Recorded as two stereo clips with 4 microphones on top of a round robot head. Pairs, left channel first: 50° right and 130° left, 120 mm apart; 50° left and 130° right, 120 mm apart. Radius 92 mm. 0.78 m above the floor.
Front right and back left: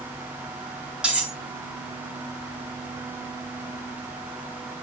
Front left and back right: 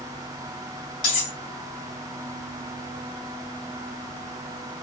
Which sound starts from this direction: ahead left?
Cutlery clinking, at 1.0 s.